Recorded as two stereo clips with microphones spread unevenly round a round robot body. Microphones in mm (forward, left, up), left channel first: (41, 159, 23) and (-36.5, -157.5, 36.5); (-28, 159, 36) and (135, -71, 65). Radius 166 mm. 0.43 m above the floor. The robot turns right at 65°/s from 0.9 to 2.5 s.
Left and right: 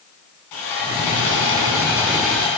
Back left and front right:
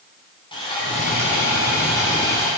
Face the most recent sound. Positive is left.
turn(degrees=155)